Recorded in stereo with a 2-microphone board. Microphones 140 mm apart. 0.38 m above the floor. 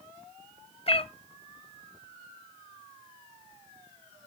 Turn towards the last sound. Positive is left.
turn(degrees=45)  # may be behind; listen again after turning